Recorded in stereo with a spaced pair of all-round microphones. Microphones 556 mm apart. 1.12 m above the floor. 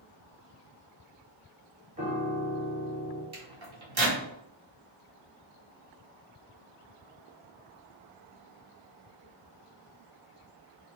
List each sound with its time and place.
2.0 s a piano: 10° right (ahead or behind), 0.7 m
3.3 s a microwave: 55° right (ahead or behind), 0.9 m